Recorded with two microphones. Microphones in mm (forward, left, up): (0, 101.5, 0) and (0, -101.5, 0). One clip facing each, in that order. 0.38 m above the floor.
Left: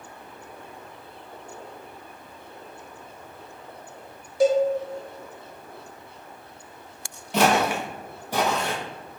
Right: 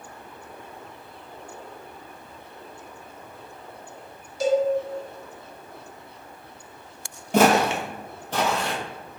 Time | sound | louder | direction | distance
4.4 | a cowbell | left 2 dB | 60° left (ahead or behind) | 0.9 m
7.3 | footsteps | right 3 dB | 55° right (ahead or behind) | 0.6 m